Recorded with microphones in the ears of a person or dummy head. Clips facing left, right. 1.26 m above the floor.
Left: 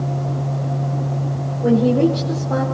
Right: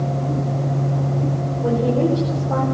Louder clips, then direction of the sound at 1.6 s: Left 4 dB; 20° left (ahead or behind).